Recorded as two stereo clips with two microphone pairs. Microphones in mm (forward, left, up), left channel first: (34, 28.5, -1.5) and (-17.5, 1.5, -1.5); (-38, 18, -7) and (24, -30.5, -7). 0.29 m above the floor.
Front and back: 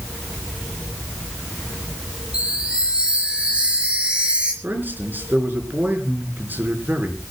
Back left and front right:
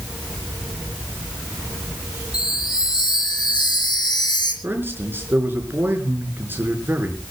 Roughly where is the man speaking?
Right.